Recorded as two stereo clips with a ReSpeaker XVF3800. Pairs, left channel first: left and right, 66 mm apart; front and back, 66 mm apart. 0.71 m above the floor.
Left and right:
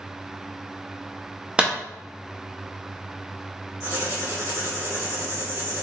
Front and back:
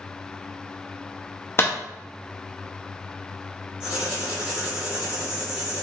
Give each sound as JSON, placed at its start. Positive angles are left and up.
{"t": 1.6, "sound": "a clap", "azimuth_deg": -20, "distance_m": 0.5}
{"t": 3.8, "sound": "writing", "azimuth_deg": -105, "distance_m": 1.9}